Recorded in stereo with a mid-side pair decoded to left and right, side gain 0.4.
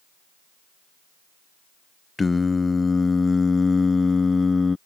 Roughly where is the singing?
Ahead left.